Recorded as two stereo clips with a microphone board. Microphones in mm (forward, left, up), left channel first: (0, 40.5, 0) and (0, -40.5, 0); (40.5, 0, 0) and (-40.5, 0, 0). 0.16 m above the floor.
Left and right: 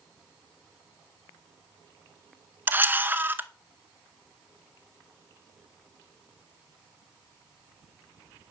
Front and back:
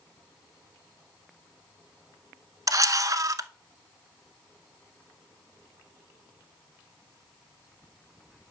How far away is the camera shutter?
About 0.8 m.